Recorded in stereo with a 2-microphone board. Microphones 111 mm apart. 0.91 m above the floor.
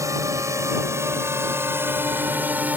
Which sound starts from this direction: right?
A drone, at 0.0 s.